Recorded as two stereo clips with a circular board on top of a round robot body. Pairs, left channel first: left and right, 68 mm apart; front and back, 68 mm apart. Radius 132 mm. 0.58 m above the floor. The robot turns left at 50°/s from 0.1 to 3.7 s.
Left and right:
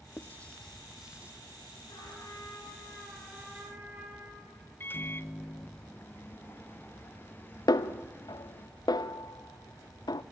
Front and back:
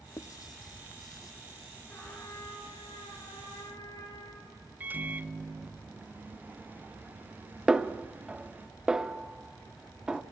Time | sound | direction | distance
0.2 | writing | 35° left | 1.0 m
1.9 | a trumpet | 65° left | 6.5 m
4.8 | a microwave | 130° left | 0.6 m
7.7 | a snare drum | 100° left | 0.8 m